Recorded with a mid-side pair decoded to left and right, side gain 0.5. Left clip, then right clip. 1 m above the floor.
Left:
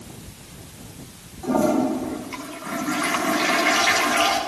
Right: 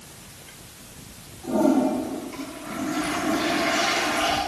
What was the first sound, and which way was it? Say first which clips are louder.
A toilet flushing: left 1 dB; 60° left.